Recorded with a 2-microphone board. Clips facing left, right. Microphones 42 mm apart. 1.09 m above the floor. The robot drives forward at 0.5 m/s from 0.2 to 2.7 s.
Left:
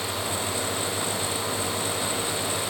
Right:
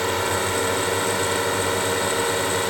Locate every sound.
0.0 s a drone: 60° right (ahead or behind); by 2.7 s 55° right (ahead or behind)